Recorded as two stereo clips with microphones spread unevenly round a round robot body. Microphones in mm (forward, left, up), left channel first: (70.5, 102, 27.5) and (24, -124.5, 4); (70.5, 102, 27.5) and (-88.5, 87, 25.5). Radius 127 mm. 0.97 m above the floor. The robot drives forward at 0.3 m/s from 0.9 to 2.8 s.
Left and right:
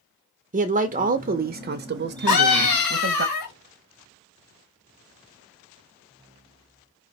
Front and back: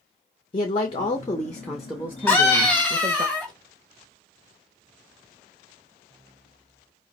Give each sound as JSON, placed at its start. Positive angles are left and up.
{"t": 0.5, "sound": "a man speaking", "azimuth_deg": -55, "distance_m": 0.6}
{"t": 2.3, "sound": "a scream", "azimuth_deg": 90, "distance_m": 2.0}